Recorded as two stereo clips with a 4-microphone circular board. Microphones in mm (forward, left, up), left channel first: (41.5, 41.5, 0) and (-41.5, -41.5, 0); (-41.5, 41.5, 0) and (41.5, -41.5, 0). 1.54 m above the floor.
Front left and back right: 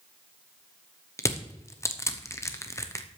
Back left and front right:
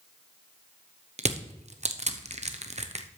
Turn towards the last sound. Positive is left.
turn(degrees=-20)